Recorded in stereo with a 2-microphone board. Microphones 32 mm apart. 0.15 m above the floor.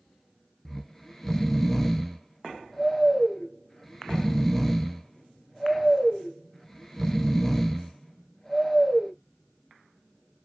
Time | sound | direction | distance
0.7 | snoring | 10° left (ahead or behind) | 0.5 m